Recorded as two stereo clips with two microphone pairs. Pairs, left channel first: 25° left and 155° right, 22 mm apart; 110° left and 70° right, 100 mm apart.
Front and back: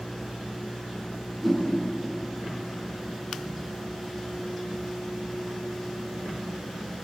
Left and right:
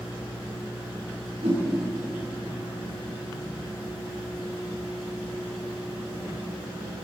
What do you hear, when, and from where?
1.4 s a whoosh: 75° right, 8 m